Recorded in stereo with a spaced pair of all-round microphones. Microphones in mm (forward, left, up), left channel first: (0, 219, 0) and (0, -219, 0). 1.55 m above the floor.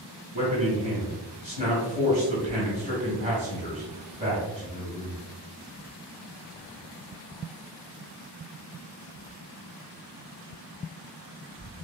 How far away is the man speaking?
About 1.5 m.